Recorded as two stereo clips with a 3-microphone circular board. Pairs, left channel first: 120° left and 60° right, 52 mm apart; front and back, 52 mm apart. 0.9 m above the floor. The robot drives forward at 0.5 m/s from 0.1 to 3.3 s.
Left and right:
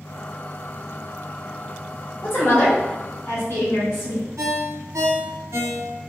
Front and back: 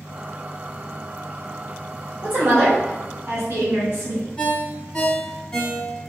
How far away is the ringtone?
About 0.6 m.